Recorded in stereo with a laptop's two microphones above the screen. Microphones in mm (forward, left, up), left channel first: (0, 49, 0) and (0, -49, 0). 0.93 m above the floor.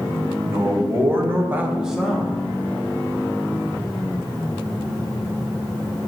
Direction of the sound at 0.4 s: 25° right (ahead or behind).